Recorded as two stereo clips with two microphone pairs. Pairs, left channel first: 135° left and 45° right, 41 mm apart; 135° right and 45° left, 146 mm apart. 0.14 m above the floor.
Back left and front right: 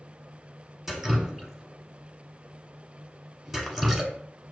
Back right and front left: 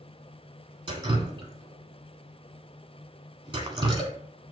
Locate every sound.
0.9 s dripping: 35° left, 1.1 m